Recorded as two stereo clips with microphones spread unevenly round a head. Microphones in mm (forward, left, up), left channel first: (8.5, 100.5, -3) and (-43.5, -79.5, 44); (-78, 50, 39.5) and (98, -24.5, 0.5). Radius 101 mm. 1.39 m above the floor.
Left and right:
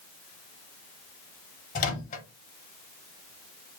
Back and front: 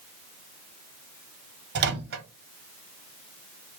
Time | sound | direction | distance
1.8 | a microwave | 15° left | 0.6 m